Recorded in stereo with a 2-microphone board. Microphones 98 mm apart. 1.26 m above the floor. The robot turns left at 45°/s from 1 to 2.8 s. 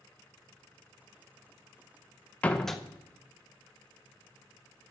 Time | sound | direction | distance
2.4 | a door slam | 15° left (ahead or behind) | 0.7 m